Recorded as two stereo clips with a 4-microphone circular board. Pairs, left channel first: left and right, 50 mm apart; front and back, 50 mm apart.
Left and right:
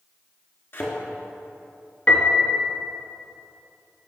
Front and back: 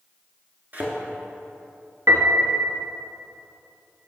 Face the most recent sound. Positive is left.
turn(degrees=155)